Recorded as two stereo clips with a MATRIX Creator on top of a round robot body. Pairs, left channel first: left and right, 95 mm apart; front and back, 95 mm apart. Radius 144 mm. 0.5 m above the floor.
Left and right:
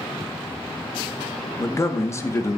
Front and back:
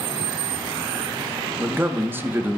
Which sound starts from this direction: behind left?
A man speaking, at 1.6 s.